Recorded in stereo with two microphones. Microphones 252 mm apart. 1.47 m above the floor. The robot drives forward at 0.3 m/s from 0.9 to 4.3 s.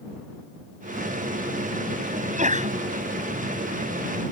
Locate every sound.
2.1 s a sneeze: 30° right (ahead or behind)